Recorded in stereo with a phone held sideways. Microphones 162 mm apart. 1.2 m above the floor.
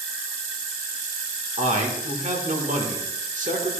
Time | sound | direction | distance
1.6 | a man speaking | 55° right (ahead or behind) | 1.7 m